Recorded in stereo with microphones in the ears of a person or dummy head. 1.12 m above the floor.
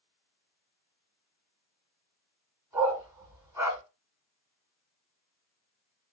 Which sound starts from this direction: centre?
A dog barking, at 2.7 s.